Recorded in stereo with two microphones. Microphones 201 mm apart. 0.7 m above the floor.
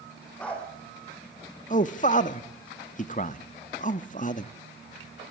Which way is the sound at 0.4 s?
5° left (ahead or behind).